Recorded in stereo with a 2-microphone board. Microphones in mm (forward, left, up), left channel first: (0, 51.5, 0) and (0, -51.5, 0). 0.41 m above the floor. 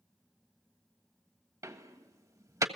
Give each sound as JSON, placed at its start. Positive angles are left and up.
{"t": 1.6, "sound": "a door slam", "side_deg": -35, "distance_m": 1.4}